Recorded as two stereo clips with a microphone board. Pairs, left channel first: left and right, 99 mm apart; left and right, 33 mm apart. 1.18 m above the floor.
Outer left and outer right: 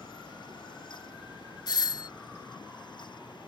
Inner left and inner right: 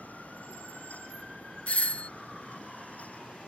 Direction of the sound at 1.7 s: 45° left (ahead or behind).